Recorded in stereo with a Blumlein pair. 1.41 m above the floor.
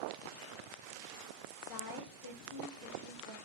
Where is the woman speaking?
35° left, 0.5 m; by 3.4 s 80° left, 1.2 m.